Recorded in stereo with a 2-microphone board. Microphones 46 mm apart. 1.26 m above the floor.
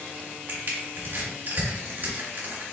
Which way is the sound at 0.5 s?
55° right (ahead or behind).